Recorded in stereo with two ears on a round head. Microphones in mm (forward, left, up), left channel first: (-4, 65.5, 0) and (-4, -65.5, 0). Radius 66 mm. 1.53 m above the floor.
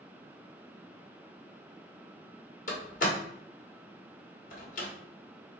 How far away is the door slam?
About 1.5 m.